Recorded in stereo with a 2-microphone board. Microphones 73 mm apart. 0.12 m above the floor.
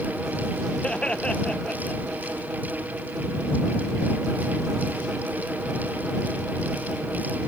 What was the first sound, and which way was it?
Laughter, 15° left (ahead or behind).